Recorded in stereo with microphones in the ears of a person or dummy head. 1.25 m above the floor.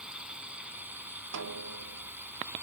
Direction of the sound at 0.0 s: 5° right (ahead or behind).